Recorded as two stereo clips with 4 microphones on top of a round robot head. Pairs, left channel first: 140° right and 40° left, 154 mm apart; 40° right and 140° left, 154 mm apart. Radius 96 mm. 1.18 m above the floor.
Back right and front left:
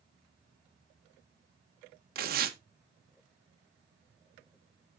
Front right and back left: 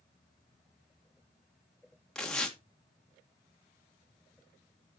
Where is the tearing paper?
45° left, 1.7 m.